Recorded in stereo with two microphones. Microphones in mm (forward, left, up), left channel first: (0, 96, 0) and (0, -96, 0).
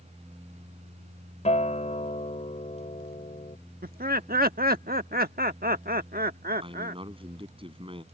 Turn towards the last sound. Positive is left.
turn(degrees=-25)  # may be behind; listen again after turning